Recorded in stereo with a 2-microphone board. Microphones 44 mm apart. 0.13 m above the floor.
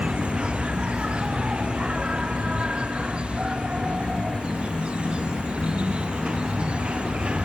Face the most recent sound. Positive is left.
turn(degrees=-25)  # may be behind; listen again after turning